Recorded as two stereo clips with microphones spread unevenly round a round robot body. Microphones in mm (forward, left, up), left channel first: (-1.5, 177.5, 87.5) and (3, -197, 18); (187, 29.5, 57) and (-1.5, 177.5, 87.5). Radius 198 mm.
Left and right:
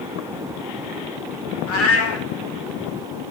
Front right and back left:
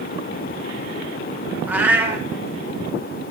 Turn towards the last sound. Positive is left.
turn(degrees=70)